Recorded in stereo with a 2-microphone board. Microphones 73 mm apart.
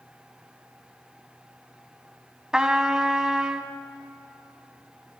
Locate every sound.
2.5 s a trumpet: 10° right (ahead or behind), 0.9 m